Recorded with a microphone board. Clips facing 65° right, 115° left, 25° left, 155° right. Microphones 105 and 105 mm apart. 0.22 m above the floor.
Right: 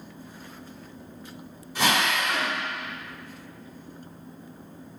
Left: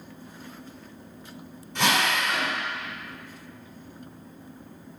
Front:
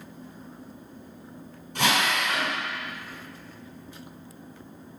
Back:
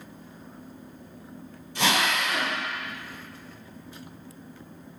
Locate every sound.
1.8 s a drill: 15° left, 1.6 m